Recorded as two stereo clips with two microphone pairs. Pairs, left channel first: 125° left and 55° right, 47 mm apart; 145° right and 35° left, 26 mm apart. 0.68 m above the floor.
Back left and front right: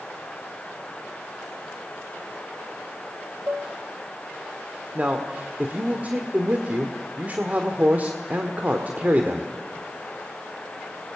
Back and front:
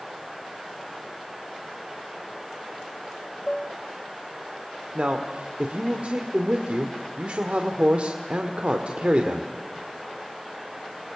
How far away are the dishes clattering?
About 2.0 m.